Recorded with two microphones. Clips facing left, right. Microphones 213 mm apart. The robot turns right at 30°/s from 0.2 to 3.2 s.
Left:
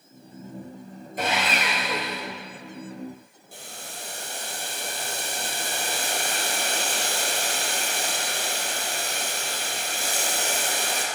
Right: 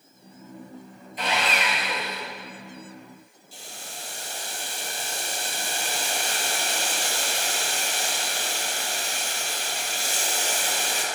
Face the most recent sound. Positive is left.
turn(degrees=55)  # may be behind; listen again after turning